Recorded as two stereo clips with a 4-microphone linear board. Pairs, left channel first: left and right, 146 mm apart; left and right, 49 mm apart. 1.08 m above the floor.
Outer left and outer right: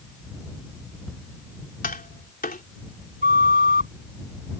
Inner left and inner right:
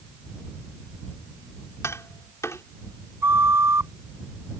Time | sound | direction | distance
1.8 | tapping | 80° left | ?
3.2 | a flute | 75° right (ahead or behind) | ?